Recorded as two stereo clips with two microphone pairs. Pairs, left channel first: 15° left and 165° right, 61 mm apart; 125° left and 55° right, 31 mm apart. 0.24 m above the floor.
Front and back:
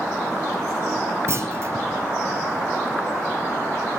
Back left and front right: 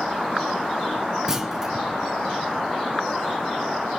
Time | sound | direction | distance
1.3 | a clunk | 130° right | 1.3 m